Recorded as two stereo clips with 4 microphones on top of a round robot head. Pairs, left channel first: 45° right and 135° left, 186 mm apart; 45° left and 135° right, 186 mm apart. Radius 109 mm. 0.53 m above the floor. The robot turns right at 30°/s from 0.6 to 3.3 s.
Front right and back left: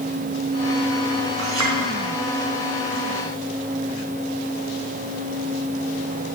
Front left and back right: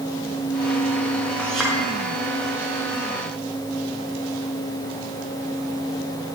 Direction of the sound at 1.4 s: 130° left.